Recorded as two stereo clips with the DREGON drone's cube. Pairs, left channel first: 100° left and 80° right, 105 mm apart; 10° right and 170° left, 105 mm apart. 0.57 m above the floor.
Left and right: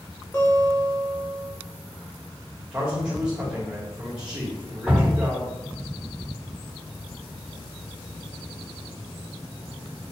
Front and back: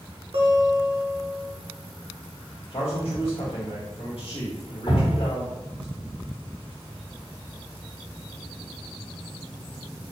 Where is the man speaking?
Straight ahead, 1.6 m.